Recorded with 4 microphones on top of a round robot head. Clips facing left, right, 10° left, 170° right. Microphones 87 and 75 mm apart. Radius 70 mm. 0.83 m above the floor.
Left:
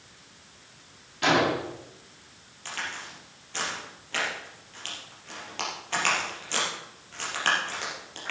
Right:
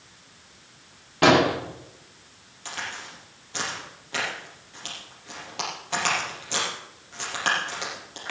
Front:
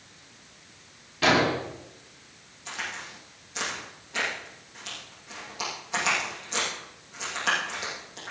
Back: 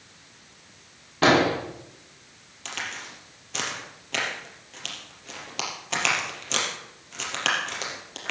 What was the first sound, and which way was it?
An explosion, 120° right.